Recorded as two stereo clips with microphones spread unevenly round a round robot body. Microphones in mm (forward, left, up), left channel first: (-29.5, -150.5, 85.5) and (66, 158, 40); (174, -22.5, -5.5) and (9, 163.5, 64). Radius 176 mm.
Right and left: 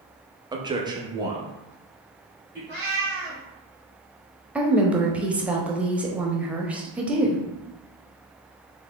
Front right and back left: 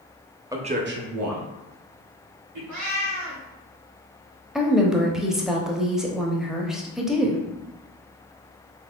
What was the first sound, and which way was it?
A man speaking, 35° left.